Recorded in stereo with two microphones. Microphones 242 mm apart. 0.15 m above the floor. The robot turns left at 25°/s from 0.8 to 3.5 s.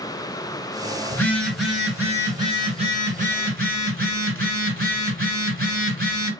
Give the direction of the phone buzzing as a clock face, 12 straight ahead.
12 o'clock.